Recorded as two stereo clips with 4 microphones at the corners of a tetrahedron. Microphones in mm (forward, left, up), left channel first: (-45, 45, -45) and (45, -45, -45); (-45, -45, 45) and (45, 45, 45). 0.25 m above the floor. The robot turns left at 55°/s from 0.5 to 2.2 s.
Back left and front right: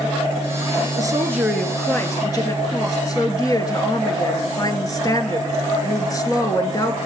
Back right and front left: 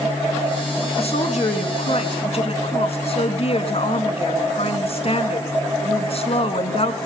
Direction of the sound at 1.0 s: 100° right.